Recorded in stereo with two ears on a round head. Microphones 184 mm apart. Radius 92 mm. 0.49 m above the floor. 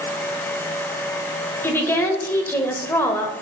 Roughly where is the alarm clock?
I don't hear an alarm clock.